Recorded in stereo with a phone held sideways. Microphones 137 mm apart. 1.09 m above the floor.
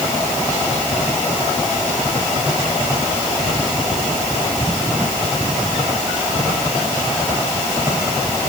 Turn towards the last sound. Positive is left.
No sound to turn to.